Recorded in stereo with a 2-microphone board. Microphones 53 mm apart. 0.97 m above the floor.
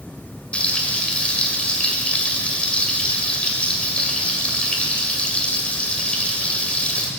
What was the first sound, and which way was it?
Frying, 25° left (ahead or behind).